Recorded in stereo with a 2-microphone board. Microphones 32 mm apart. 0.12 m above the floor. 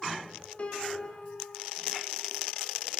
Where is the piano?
45° left (ahead or behind), 6.5 m.